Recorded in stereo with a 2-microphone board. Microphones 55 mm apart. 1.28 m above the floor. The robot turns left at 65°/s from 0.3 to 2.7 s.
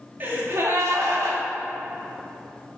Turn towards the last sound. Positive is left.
turn(degrees=165)